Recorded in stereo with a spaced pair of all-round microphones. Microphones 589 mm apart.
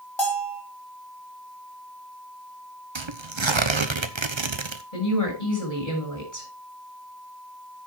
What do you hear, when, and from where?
0.2 s a bell: 45° left (ahead or behind), 4 m
3.0 s tearing paper: 50° right (ahead or behind), 1.0 m
4.9 s a woman speaking: 85° left, 7 m